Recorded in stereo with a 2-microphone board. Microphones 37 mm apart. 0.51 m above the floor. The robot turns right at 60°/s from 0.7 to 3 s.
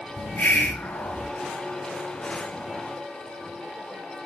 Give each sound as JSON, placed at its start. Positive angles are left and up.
{"t": 0.2, "sound": "a hiss", "azimuth_deg": 80, "distance_m": 2.5}